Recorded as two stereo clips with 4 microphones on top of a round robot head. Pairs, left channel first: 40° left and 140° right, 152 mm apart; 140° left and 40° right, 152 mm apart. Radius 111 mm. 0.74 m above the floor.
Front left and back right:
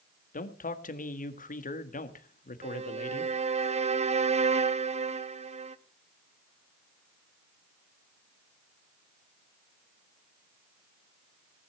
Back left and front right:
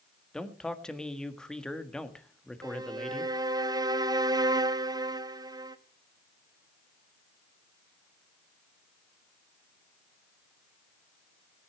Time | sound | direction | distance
0.3 | a man speaking | 55° left | 1.7 m
2.6 | a violin | 100° right | 1.1 m